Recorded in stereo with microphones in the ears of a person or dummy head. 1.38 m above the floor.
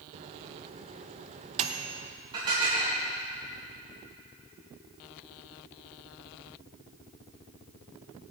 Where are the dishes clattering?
25° right (ahead or behind), 7 m.